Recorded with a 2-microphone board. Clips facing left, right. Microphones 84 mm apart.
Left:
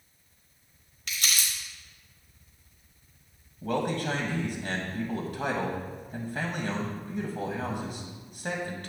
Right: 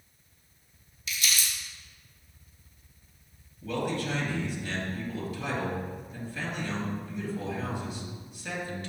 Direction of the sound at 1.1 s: 65° left (ahead or behind).